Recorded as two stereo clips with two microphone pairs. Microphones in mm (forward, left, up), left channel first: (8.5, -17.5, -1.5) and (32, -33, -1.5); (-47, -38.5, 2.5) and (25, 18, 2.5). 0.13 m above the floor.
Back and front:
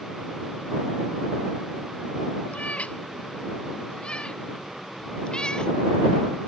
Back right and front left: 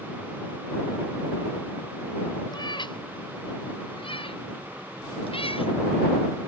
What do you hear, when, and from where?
2.5 s a cat meowing: straight behind; by 5.7 s 150° right